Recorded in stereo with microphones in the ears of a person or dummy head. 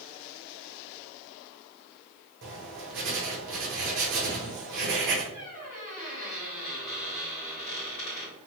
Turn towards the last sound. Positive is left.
turn(degrees=30)  # may be behind; listen again after turning